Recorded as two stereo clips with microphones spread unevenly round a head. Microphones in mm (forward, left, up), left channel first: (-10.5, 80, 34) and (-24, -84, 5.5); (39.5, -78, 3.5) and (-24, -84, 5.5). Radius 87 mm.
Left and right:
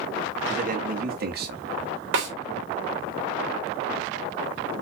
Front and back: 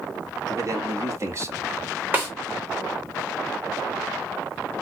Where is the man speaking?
140° right, 2.5 m; by 1.7 s 125° right, 2 m.